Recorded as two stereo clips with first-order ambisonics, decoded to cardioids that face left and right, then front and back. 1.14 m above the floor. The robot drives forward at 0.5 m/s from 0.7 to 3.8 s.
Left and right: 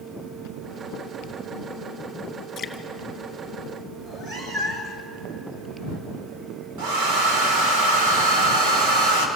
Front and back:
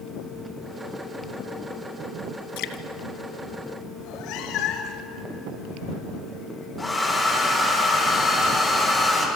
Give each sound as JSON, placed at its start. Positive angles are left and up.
{"t": 2.6, "sound": "dripping", "azimuth_deg": 20, "distance_m": 1.6}
{"t": 4.0, "sound": "a cat meowing", "azimuth_deg": -25, "distance_m": 2.5}
{"t": 6.8, "sound": "a hair dryer", "azimuth_deg": -80, "distance_m": 4.0}